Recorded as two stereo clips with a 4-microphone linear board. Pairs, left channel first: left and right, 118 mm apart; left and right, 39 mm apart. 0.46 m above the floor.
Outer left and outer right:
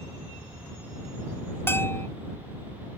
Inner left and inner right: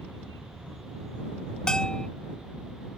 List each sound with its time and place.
1.7 s a bell: 20° left (ahead or behind)